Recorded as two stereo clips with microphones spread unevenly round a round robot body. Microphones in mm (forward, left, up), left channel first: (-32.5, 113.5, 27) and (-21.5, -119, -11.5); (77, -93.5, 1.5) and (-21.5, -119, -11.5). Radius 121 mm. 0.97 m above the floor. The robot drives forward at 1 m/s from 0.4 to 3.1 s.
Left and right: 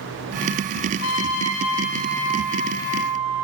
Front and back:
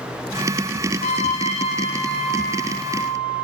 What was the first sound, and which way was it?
A trumpet, 50° left.